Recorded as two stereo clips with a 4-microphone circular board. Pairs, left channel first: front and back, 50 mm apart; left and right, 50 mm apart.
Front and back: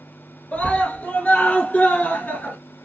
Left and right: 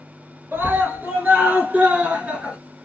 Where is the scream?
55° right, 2.5 m; by 2.6 s 35° right, 1.6 m.